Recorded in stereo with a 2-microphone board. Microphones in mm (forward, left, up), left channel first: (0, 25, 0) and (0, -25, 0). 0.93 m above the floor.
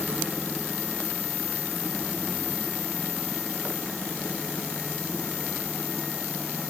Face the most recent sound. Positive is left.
No sound to turn to.